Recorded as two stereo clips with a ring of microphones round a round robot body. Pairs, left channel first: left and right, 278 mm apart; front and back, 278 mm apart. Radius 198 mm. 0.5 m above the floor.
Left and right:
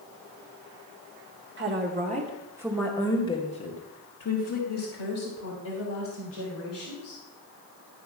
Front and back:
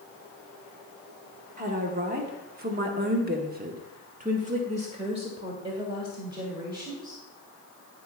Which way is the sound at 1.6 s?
125° right.